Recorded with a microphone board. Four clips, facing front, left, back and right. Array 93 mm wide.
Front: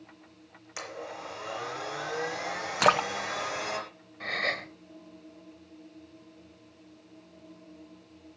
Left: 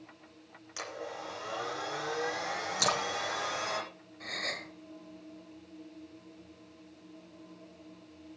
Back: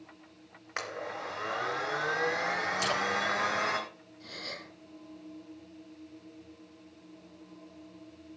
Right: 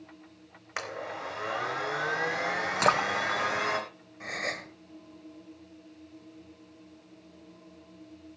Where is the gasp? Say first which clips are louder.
Right 4 dB, front 12 dB; 25° right, 1.6 m.